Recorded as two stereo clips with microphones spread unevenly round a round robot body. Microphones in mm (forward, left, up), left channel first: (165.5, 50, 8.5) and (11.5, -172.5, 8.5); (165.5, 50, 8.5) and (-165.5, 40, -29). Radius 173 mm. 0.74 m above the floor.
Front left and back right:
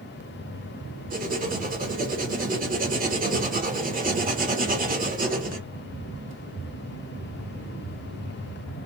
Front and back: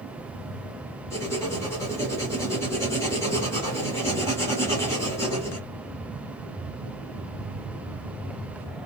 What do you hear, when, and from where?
1.1 s writing: 85° right, 1.3 m